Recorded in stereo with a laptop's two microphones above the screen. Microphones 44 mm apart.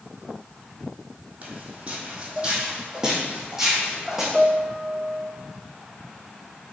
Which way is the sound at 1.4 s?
35° right (ahead or behind).